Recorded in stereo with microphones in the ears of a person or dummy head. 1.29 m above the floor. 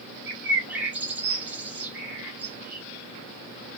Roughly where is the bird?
Centre.